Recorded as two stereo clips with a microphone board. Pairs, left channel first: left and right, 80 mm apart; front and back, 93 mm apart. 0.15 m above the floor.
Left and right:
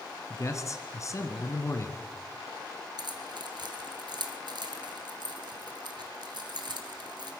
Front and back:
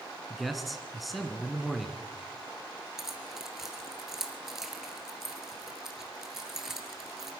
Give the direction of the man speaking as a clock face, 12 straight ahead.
9 o'clock.